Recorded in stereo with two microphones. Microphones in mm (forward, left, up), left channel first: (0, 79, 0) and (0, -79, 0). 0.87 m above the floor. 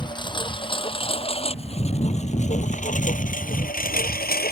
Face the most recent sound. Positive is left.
turn(degrees=80)